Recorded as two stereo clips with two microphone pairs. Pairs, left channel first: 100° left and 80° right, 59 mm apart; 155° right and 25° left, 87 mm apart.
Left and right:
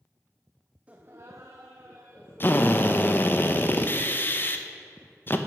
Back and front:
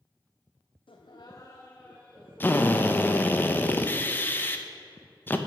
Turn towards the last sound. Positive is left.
turn(degrees=140)